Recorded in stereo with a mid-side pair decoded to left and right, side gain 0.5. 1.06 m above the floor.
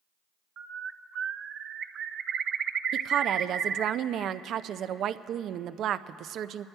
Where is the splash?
No splash in this recording.